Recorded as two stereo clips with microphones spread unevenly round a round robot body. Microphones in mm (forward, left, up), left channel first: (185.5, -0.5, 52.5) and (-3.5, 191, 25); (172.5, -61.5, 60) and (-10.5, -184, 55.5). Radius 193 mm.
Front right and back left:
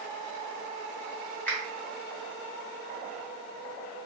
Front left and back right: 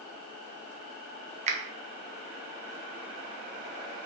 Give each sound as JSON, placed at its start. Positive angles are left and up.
{"t": 1.5, "sound": "a finger snap", "azimuth_deg": -135, "distance_m": 0.5}